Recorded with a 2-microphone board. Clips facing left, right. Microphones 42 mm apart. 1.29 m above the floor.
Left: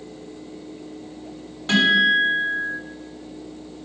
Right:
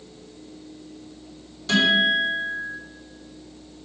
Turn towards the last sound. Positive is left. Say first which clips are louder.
# left 2 dB
turn(degrees=35)  # may be behind; listen again after turning